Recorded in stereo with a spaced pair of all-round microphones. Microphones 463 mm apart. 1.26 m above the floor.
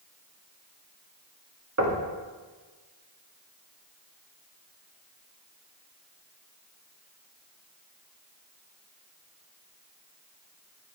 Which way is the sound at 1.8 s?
35° right (ahead or behind).